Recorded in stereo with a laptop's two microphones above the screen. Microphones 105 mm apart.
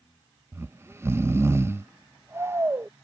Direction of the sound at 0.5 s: 25° right (ahead or behind).